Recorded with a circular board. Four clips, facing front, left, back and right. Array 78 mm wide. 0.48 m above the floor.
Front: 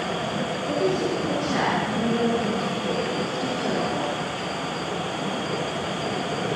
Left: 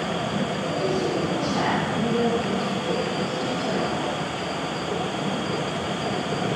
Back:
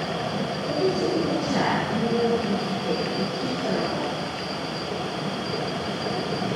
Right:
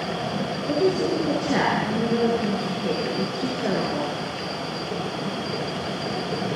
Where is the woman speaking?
80° right, 8 m.